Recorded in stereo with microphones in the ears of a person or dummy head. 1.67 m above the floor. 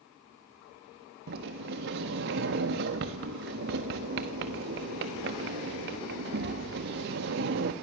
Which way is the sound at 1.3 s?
45° right (ahead or behind).